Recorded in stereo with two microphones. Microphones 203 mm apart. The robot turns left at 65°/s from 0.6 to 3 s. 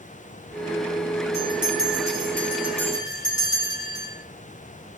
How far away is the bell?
About 4.5 m.